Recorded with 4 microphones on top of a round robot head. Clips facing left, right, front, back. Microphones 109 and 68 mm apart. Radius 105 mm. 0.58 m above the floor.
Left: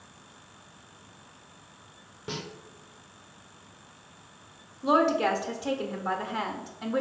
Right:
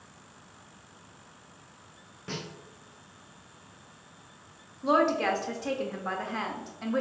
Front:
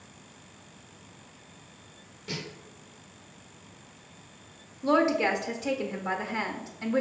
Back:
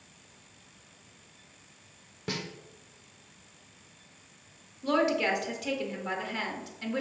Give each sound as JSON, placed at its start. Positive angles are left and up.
{"t": 2.3, "sound": "a snare drum", "azimuth_deg": 160, "distance_m": 0.8}
{"t": 4.8, "sound": "a woman speaking", "azimuth_deg": 20, "distance_m": 0.6}